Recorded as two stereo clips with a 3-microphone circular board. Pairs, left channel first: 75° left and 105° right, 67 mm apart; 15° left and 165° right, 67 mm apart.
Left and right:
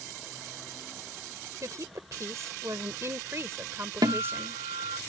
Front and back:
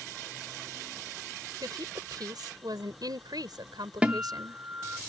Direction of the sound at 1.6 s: 145° right.